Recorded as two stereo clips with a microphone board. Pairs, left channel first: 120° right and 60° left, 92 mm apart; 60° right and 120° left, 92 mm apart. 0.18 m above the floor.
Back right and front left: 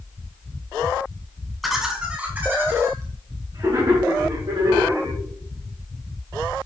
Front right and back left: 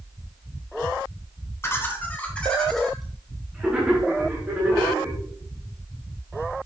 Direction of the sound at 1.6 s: 30° right.